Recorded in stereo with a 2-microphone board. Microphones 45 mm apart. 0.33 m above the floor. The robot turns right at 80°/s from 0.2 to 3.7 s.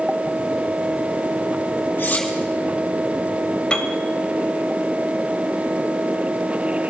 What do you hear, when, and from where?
2.0 s cutlery clinking: 55° left (ahead or behind), 6 m; by 2.3 s 35° left (ahead or behind), 6 m
3.7 s a piano: 20° left (ahead or behind), 1.4 m